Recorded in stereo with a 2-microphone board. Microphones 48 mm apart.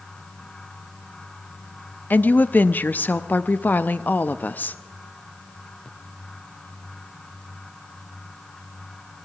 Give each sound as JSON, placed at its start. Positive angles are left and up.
{"t": 2.1, "sound": "a woman speaking", "side_deg": 40, "distance_m": 0.5}